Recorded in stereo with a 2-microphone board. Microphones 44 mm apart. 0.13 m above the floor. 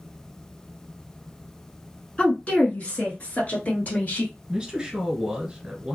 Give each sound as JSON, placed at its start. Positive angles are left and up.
{"t": 2.2, "sound": "a woman speaking", "side_deg": 30, "distance_m": 1.2}
{"t": 4.5, "sound": "a man speaking", "side_deg": -15, "distance_m": 1.4}